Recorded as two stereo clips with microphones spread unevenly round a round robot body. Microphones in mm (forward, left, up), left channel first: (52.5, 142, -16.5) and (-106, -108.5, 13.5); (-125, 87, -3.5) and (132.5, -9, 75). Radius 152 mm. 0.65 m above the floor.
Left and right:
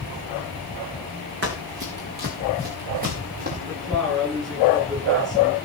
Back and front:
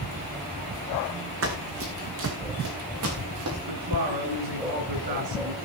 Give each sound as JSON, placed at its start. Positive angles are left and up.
{"t": 1.4, "sound": "running footsteps", "azimuth_deg": -65, "distance_m": 3.5}
{"t": 3.7, "sound": "a woman speaking", "azimuth_deg": -30, "distance_m": 9.5}